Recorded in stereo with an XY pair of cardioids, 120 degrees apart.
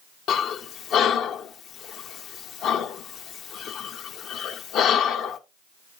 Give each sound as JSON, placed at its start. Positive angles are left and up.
{"t": 0.3, "sound": "breathing", "azimuth_deg": 65, "distance_m": 0.9}